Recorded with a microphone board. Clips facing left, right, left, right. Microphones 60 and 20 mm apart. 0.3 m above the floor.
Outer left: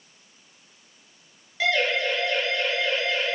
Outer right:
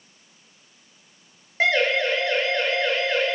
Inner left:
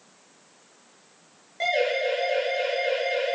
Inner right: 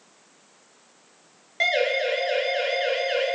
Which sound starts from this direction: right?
A siren, at 1.6 s.